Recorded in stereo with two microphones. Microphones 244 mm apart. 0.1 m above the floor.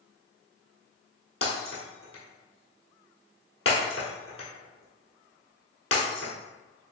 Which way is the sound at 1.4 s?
60° left (ahead or behind).